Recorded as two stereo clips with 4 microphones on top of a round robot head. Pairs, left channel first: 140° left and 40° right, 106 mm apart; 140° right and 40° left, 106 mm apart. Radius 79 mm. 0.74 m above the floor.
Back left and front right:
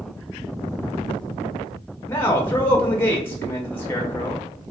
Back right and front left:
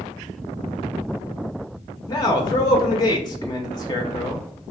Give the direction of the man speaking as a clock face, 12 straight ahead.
5 o'clock.